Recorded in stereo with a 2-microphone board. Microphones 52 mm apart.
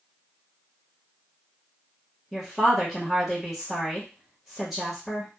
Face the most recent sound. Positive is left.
turn(degrees=-5)  # may be behind; listen again after turning